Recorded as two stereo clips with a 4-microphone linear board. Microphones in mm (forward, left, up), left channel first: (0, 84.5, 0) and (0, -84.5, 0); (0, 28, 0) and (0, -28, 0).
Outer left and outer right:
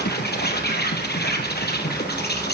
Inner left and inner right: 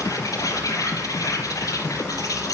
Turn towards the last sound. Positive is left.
turn(degrees=75)  # may be behind; listen again after turning